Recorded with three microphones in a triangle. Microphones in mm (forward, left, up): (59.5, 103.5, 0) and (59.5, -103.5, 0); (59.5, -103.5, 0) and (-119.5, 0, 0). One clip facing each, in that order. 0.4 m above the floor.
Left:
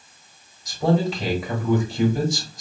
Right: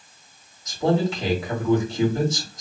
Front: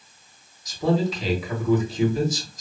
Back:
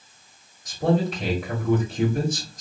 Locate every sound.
0.7 s a man speaking: 170° left, 1.7 m